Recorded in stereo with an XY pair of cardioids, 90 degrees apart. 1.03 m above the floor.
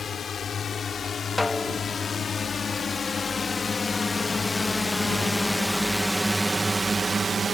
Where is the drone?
55° left; by 7.6 s 55° right.